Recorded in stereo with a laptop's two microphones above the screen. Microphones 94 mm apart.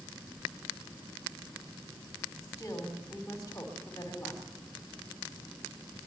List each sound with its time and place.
2.4 s a woman speaking: 35° left (ahead or behind), 3.5 m